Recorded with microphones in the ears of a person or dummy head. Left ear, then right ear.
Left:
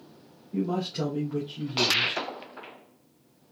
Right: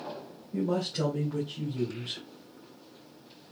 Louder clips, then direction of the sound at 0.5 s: Even; centre (ahead or behind).